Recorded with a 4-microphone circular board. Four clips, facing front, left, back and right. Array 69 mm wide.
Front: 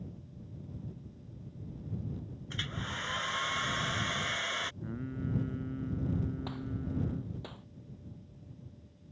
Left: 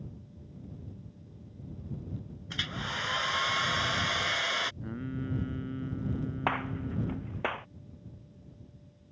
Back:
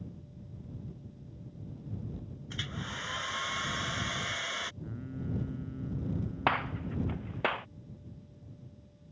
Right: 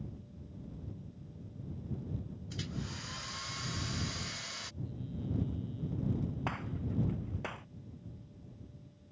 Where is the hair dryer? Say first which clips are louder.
Left 9 dB, front 1 dB; 85° left.